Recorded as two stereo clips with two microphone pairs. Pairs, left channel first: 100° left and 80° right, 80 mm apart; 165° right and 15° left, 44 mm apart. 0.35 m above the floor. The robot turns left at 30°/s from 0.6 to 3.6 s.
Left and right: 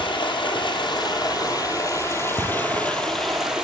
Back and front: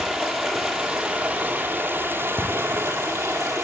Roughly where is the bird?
No bird in this recording.